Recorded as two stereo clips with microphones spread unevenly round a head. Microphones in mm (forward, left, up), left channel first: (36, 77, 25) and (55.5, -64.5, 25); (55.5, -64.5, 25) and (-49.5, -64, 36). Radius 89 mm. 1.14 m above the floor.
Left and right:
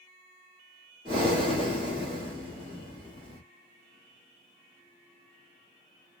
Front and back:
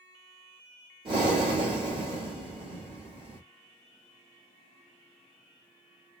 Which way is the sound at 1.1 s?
145° right.